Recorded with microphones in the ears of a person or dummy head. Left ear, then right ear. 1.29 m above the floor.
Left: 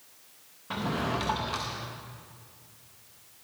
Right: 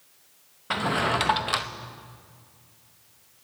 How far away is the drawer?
About 0.6 m.